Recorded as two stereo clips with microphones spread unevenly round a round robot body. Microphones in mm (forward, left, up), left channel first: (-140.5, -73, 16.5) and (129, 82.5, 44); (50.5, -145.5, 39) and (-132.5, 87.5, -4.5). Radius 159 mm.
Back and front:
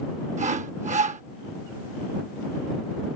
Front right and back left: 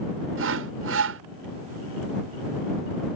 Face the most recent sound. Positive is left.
turn(degrees=95)